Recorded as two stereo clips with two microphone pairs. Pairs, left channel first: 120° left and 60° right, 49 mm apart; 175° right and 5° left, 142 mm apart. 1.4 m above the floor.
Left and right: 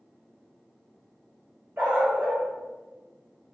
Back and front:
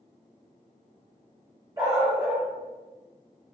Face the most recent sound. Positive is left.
turn(degrees=-40)